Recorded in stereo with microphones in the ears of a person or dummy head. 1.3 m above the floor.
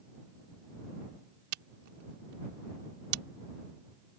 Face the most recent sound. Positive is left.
turn(degrees=-60)  # may be behind; listen again after turning